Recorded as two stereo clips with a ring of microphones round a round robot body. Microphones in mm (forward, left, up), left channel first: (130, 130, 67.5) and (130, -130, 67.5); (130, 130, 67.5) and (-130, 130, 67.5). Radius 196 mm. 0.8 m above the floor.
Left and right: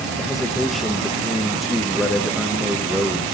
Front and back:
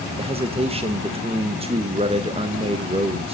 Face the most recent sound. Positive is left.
turn(degrees=180)